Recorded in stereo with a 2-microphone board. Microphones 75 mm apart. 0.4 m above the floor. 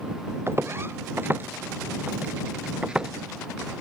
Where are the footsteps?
35° right (ahead or behind); by 3.1 s 10° right (ahead or behind).